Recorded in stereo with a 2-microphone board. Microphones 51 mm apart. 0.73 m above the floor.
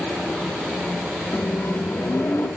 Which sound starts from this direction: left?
A microwave, at 1.3 s.